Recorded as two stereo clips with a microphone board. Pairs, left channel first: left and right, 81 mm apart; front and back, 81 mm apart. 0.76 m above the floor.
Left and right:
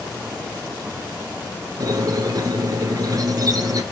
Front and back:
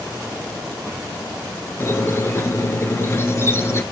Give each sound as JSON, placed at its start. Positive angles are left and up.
{"t": 1.8, "sound": "a squeak", "azimuth_deg": -55, "distance_m": 1.7}